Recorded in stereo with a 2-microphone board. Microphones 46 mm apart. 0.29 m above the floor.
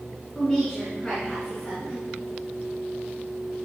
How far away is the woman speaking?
About 3.5 m.